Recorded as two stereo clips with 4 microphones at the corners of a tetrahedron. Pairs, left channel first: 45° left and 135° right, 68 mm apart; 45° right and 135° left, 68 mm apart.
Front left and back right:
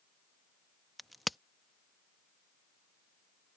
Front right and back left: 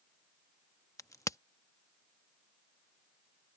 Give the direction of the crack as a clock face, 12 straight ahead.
2 o'clock.